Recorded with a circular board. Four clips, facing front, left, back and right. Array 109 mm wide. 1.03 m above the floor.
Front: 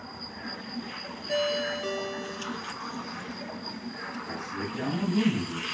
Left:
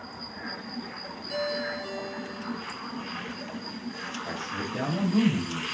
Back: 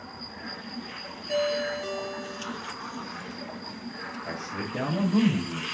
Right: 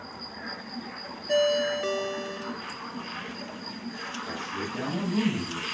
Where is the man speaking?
150° left, 4.5 m.